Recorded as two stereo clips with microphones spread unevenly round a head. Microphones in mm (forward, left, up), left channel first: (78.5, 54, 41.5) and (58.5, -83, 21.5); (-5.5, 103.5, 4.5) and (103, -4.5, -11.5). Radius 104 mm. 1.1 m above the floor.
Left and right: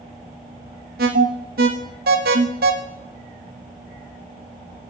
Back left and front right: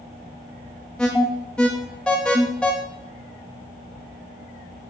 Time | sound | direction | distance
1.0 | an alarm | 140° right | 0.6 m